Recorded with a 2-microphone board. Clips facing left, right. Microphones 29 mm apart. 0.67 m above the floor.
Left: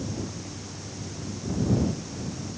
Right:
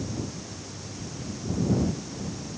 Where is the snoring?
I don't hear snoring.